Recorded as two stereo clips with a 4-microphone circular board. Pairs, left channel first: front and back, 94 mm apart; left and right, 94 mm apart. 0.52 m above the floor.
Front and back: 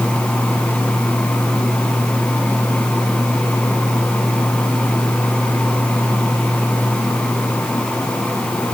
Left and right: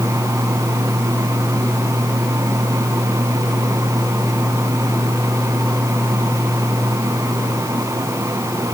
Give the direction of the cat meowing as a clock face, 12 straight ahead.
No cat meowing in this recording.